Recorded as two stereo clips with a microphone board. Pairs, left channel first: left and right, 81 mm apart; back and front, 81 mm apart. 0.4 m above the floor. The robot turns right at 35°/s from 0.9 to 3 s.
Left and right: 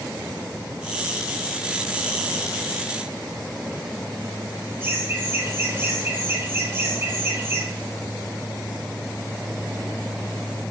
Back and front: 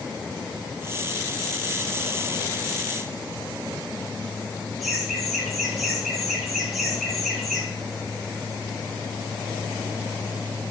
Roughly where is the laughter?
Right.